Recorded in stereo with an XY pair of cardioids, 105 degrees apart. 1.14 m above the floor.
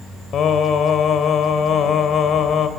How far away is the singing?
About 3 m.